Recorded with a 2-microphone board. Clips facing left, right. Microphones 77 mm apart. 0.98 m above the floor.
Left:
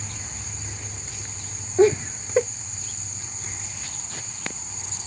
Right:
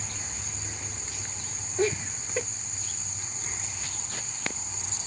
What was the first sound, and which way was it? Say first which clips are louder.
Laughter: left 10 dB; 35° left (ahead or behind).